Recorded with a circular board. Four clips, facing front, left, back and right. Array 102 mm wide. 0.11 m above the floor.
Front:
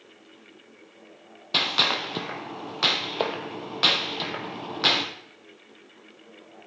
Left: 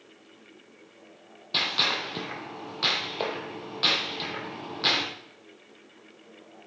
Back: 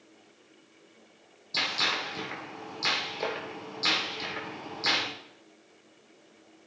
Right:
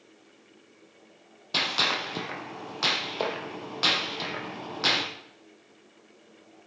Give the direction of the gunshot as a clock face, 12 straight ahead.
12 o'clock.